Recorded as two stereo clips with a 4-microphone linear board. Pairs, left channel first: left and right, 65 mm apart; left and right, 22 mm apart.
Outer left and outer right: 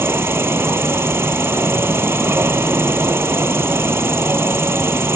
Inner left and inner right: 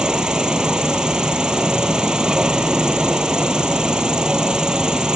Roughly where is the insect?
Right.